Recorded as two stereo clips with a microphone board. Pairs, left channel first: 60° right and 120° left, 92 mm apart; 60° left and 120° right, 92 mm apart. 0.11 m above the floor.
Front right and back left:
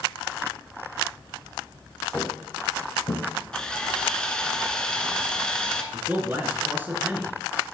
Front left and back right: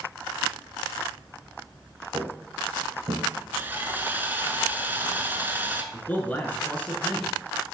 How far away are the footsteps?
About 1.6 m.